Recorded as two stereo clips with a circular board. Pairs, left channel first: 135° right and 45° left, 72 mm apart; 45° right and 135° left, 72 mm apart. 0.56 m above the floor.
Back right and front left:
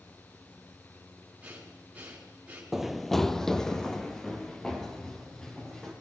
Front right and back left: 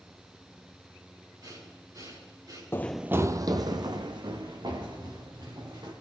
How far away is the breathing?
About 5.5 m.